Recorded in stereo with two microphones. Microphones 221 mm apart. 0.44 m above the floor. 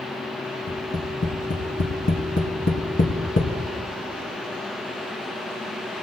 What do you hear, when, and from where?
0.7 s tapping: 60° left (ahead or behind), 2.5 m